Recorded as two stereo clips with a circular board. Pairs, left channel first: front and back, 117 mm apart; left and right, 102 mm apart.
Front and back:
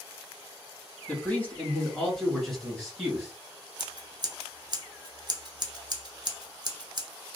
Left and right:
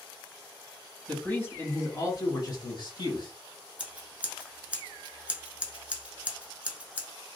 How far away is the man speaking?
About 1.0 m.